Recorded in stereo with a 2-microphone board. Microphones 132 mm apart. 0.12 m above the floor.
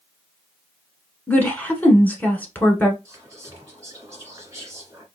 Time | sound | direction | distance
1.3 | a woman speaking | 10° left (ahead or behind) | 1.2 m
3.0 | whispering | 25° right (ahead or behind) | 1.5 m